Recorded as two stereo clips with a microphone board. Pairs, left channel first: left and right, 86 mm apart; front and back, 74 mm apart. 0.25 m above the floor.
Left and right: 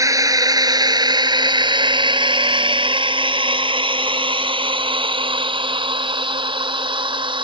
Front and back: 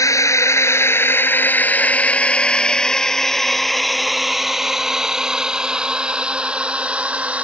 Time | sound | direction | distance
0.0 | a drone | 40° right | ?